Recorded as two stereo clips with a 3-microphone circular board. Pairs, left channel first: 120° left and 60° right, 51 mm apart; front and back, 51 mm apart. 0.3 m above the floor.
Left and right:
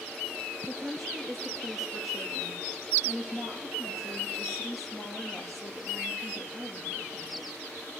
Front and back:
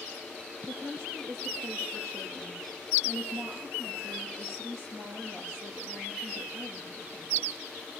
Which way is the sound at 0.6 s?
150° right.